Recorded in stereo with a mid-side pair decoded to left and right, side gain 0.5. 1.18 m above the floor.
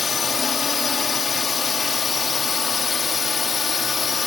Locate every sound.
0.0 s a drone: 35° left